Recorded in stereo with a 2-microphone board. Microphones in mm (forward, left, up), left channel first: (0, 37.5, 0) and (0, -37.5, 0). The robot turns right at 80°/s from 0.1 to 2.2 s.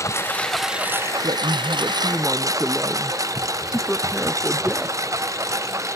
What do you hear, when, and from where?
0.0 s a lawn mower: 40° left (ahead or behind); by 6.0 s 45° right (ahead or behind)
1.2 s a man speaking: 85° right; by 5.0 s 5° right